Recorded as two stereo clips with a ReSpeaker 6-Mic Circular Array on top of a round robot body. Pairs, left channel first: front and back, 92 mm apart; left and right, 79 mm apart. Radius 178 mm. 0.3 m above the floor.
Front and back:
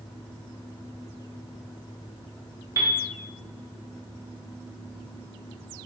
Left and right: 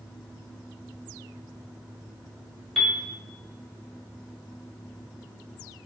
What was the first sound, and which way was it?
A piano, 175° left.